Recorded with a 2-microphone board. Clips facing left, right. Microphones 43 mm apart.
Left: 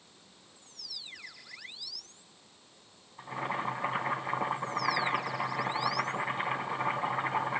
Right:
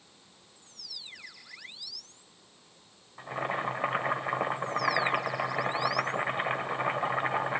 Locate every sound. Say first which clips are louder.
3.2 s boiling: right 2 dB; 45° right (ahead or behind), 2.5 m